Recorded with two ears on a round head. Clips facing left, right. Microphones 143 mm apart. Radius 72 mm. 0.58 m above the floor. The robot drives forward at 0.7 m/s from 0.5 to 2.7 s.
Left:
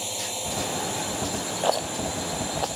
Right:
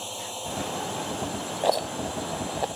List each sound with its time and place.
0.0 s a drone: 15° left (ahead or behind)
1.6 s a rattle: 10° right (ahead or behind)